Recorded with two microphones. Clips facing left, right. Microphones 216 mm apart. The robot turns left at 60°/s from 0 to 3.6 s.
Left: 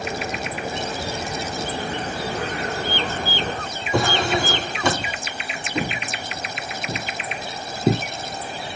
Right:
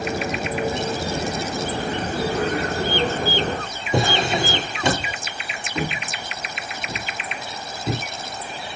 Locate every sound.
3.9 s a drawer: 25° right (ahead or behind), 3.5 m
5.8 s footsteps: 20° left (ahead or behind), 2.5 m; by 8.0 s 55° left (ahead or behind), 1.9 m